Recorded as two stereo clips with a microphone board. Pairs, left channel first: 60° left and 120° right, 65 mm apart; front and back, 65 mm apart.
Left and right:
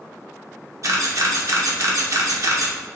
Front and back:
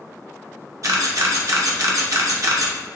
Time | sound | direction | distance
0.8 | a camera shutter | 150° right | 1.0 m